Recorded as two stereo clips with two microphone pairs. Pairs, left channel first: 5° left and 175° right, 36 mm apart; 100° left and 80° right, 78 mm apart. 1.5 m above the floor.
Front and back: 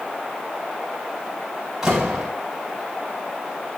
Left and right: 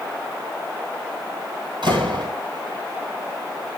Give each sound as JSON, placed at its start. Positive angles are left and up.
{"t": 1.8, "sound": "a door slam", "azimuth_deg": -95, "distance_m": 9.5}